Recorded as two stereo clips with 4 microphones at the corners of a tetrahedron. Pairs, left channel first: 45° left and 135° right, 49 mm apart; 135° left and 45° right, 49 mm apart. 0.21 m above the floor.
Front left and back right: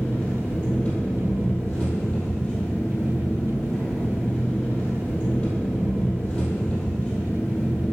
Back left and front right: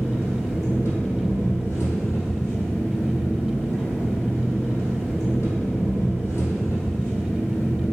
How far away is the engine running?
About 3 m.